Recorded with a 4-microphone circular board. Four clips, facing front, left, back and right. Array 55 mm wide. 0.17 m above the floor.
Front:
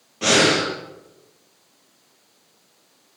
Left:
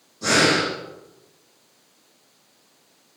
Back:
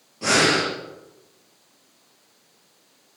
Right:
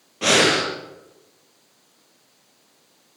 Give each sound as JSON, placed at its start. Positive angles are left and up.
{"t": 0.2, "sound": "breathing", "azimuth_deg": -65, "distance_m": 5.5}